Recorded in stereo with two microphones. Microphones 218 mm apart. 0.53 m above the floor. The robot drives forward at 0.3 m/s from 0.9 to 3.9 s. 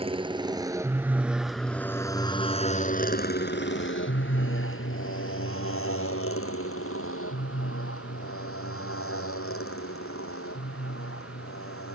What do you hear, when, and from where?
0.0 s a motorcycle: 25° right (ahead or behind); by 12.0 s 85° left